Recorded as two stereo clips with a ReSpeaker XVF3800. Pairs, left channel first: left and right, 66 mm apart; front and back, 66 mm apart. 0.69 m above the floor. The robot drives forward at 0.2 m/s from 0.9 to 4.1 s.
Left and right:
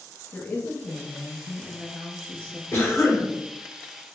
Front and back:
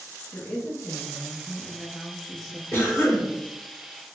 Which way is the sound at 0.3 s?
35° left.